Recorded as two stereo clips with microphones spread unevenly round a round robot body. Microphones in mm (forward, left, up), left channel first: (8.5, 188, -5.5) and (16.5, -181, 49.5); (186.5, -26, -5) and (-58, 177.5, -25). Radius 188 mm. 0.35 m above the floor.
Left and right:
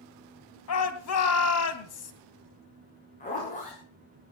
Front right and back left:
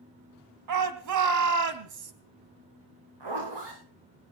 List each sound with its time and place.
0.7 s a shout: 130° left, 2.5 m
3.2 s a zipper: 160° left, 9 m